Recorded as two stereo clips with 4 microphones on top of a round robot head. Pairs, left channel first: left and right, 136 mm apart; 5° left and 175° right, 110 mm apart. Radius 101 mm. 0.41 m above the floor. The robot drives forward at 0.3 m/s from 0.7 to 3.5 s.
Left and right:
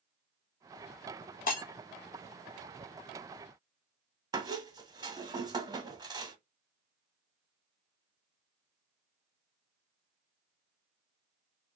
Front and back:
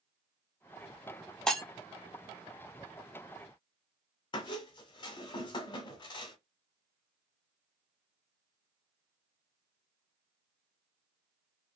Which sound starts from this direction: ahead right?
A squeak, at 4.3 s.